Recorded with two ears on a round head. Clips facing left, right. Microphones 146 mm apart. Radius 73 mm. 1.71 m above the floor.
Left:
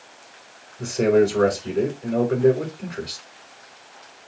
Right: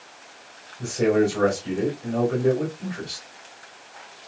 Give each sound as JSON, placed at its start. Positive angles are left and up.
{"t": 0.8, "sound": "a man speaking", "side_deg": 40, "distance_m": 4.0}